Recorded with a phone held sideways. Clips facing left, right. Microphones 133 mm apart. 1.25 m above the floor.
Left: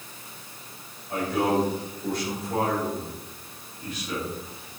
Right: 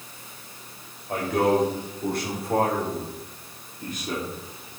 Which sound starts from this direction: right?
A man speaking, at 1.1 s.